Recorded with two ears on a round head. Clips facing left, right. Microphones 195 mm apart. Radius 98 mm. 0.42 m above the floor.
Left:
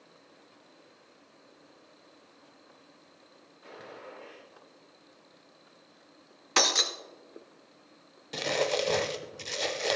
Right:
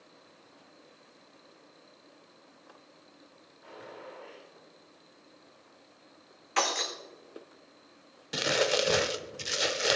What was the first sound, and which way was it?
A gunshot, 50° left (ahead or behind).